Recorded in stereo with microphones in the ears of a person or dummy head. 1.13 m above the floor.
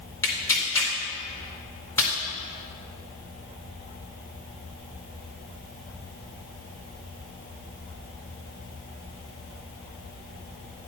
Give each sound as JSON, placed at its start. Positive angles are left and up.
{"t": 0.2, "sound": "tearing paper", "side_deg": 15, "distance_m": 1.9}